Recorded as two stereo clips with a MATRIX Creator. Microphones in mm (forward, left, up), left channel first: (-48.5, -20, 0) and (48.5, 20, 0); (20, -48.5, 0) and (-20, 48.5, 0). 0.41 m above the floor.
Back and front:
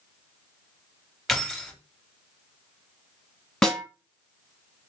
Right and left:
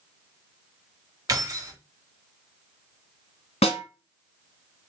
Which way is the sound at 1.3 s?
115° left.